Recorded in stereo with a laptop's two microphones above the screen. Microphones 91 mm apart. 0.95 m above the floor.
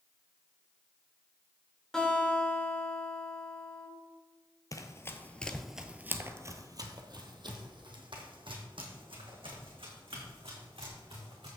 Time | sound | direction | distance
1.9 | a guitar | 5° left (ahead or behind) | 3 m
4.7 | running footsteps | 40° left (ahead or behind) | 1.1 m